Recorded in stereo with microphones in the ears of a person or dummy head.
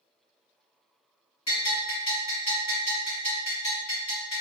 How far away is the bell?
About 1.6 m.